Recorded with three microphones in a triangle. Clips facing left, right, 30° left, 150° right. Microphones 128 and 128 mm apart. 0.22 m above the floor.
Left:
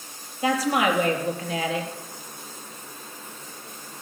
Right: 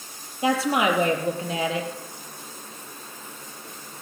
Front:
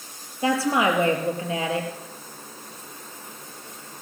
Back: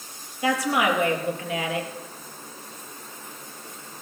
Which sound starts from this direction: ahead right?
A woman speaking, at 0.4 s.